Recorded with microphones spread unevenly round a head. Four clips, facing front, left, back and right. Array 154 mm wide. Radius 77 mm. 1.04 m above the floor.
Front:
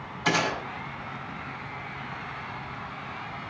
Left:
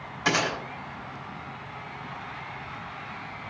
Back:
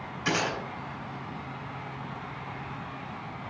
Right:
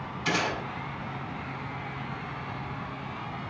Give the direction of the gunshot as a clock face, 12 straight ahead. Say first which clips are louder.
Left 3 dB, front 3 dB; 10 o'clock.